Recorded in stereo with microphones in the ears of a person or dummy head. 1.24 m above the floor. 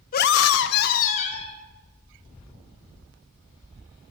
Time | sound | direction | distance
0.1 | a scream | 45° left (ahead or behind) | 0.7 m